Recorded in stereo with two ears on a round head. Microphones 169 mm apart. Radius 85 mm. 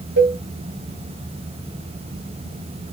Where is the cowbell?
75° right (ahead or behind), 1.9 m.